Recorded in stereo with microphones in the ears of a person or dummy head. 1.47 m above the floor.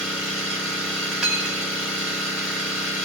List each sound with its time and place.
0.0 s an engine running: centre (ahead or behind), 2.5 m
1.2 s cutlery clinking: 5° right (ahead or behind), 1.3 m